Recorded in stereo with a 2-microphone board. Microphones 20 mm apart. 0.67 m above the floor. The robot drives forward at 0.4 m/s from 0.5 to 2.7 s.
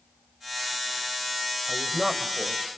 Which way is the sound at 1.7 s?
10° right (ahead or behind).